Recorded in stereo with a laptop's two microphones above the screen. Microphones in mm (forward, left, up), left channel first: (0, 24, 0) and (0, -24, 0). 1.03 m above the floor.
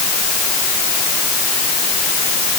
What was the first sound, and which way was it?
Only background noise.